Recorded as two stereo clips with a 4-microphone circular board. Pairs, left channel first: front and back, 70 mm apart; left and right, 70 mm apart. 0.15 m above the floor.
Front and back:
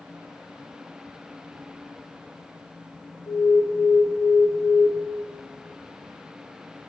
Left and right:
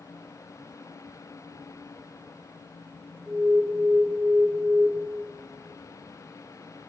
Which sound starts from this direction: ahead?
An alarm, at 3.3 s.